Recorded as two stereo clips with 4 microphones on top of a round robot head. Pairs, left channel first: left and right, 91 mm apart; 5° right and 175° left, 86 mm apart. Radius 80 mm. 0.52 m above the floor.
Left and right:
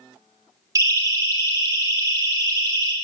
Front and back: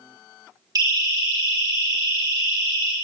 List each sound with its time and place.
0.8 s a siren: 140° right, 6 m; by 2.9 s 135° right, 5 m